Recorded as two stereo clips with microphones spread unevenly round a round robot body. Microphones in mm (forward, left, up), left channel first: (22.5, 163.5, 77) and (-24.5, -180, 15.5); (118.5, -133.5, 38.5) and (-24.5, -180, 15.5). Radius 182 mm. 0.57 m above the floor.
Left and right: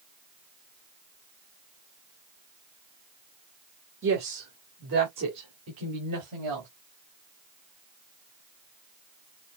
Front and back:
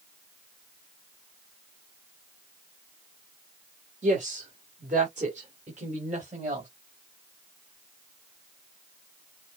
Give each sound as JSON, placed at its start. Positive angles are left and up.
{"t": 4.0, "sound": "a woman speaking", "azimuth_deg": -145, "distance_m": 2.0}